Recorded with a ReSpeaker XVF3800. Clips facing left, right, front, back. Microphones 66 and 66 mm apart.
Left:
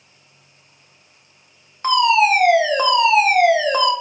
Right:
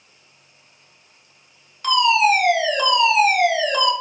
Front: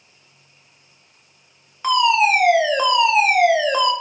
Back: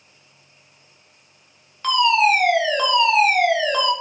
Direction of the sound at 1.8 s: 65° left.